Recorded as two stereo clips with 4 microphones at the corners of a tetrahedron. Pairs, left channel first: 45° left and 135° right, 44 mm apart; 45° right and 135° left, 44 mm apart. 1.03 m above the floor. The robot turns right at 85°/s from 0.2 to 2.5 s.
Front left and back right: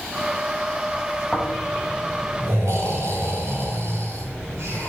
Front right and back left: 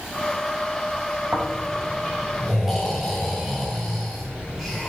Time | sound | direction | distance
1.3 | snoring | 120° left | 6.5 m